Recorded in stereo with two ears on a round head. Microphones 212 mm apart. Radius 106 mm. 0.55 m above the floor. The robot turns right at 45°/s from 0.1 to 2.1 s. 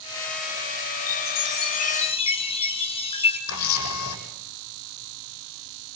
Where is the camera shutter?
65° left (ahead or behind), 7 m.